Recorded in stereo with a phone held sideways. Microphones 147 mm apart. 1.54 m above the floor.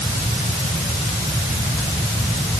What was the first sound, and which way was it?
Only background noise.